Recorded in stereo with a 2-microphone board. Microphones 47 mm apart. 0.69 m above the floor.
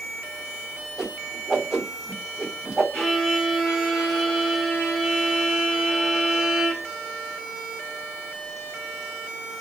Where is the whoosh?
10° right (ahead or behind), 0.9 m.